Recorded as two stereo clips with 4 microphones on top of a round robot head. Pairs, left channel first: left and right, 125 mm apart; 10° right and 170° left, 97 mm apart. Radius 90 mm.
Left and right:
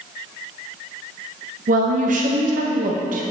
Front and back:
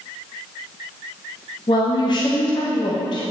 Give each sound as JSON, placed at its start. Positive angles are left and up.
{"t": 1.7, "sound": "a woman speaking", "azimuth_deg": -60, "distance_m": 0.8}